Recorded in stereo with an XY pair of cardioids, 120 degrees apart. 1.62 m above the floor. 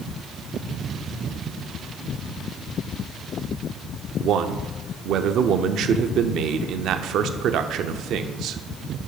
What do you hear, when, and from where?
4.2 s a man speaking: 65° right, 0.5 m